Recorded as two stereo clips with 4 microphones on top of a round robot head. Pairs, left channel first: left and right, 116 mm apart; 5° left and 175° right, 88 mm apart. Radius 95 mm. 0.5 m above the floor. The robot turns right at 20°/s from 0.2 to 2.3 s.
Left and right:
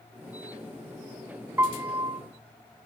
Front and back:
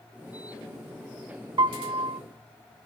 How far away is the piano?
About 0.5 m.